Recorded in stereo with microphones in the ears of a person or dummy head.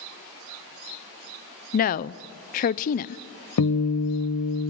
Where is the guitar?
75° left (ahead or behind), 1.1 m.